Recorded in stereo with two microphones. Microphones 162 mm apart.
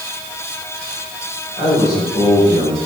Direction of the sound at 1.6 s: 20° left (ahead or behind).